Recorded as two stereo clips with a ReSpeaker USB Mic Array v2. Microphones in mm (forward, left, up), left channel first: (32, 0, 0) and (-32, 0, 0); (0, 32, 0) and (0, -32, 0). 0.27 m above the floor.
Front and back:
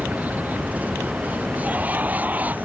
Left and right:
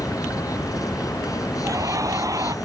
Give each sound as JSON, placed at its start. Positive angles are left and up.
{"t": 0.0, "sound": "an insect", "azimuth_deg": 115}
{"t": 1.6, "sound": "laughter", "azimuth_deg": -115}